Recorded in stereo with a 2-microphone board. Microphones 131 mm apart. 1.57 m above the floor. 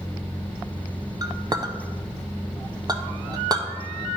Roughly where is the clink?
Right.